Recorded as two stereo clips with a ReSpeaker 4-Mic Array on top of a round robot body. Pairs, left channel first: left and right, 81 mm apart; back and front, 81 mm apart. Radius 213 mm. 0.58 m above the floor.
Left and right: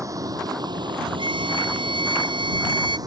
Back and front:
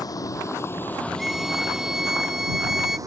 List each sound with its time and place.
0.0 s a vehicle: 135° right; by 3.1 s 45° right
1.2 s a violin: 85° right